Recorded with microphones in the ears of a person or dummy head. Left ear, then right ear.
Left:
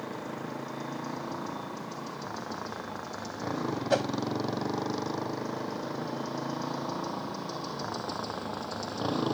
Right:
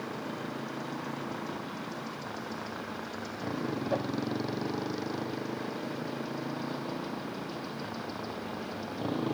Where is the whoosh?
75° left (ahead or behind).